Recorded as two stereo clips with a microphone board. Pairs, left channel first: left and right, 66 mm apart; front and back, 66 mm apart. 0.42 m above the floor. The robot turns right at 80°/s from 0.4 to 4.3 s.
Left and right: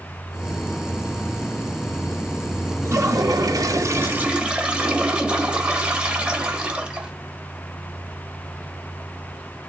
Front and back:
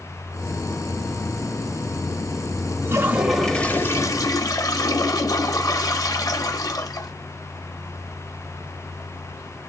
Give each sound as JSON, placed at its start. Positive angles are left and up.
{"t": 2.9, "sound": "a toilet flushing", "azimuth_deg": -135, "distance_m": 0.8}